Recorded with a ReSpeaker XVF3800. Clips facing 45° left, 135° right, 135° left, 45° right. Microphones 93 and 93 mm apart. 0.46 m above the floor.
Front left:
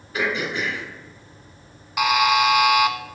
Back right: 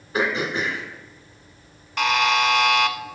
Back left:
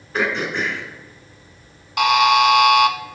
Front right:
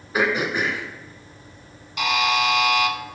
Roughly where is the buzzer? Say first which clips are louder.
Front left 2 dB, back left 7 dB; behind left.